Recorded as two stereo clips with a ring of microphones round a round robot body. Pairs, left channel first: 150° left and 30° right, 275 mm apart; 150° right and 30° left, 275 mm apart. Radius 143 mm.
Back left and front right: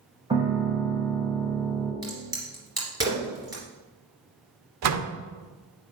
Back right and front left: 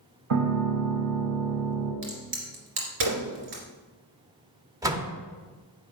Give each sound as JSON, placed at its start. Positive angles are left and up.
{"t": 0.3, "sound": "a piano", "azimuth_deg": 45, "distance_m": 1.8}
{"t": 2.0, "sound": "a crack", "azimuth_deg": 45, "distance_m": 2.5}
{"t": 4.8, "sound": "a door slam", "azimuth_deg": -45, "distance_m": 0.9}